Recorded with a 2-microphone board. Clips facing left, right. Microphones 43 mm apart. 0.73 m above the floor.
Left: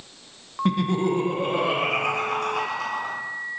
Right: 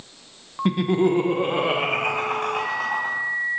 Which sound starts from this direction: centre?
Laughter, at 0.7 s.